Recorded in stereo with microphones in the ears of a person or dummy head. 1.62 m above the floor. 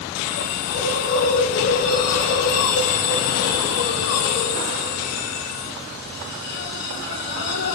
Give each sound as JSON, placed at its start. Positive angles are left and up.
{"t": 0.1, "sound": "a hiss", "side_deg": 45, "distance_m": 2.0}